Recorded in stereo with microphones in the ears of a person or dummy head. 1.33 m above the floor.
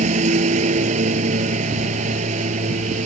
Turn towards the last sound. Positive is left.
turn(degrees=-45)  # may be behind; listen again after turning